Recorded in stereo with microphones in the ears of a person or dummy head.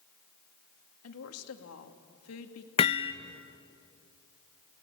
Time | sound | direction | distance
1.0 | a woman speaking | 80° left | 2 m
2.8 | hammering | 25° left (ahead or behind) | 0.6 m